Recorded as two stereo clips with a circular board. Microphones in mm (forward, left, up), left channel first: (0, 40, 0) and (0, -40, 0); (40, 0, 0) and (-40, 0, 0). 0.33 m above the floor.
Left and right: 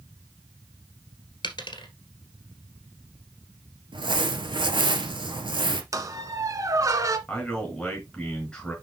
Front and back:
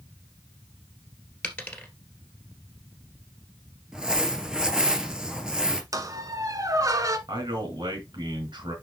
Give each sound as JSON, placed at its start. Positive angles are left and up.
{"t": 1.4, "sound": "a dropped coin", "azimuth_deg": 75, "distance_m": 1.9}
{"t": 3.9, "sound": "crumpling", "azimuth_deg": -100, "distance_m": 1.3}
{"t": 5.9, "sound": "a squeak", "azimuth_deg": -135, "distance_m": 1.1}
{"t": 7.3, "sound": "a man speaking", "azimuth_deg": 170, "distance_m": 5.0}